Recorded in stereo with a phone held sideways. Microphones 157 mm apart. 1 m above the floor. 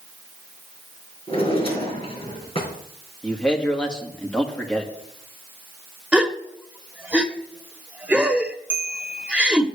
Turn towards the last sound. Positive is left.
turn(degrees=-10)  # may be behind; listen again after turning